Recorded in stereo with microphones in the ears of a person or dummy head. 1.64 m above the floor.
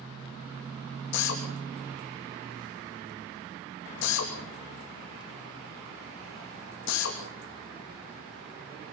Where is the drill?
65° left (ahead or behind), 3 m.